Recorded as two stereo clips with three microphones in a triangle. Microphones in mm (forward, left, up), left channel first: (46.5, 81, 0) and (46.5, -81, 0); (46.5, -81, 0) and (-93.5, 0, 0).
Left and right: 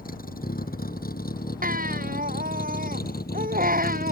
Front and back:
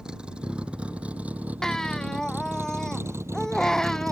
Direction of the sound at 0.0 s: 65° left.